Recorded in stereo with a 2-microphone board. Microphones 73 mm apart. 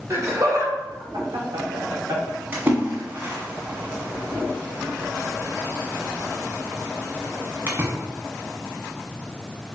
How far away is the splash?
About 1.4 m.